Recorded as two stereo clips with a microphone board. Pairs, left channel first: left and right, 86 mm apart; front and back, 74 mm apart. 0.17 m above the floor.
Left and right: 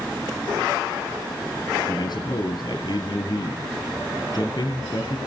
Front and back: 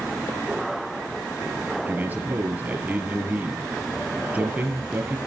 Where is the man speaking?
115° left, 3.5 m.